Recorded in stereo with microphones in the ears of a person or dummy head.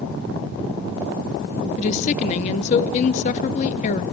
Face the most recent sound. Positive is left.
turn(degrees=35)  # may be behind; listen again after turning